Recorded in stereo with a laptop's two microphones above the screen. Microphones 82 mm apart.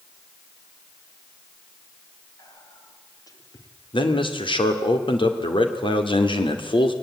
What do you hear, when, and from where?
2.4 s whispering: 45° left (ahead or behind), 3 m
3.9 s a man speaking: 90° left, 2.5 m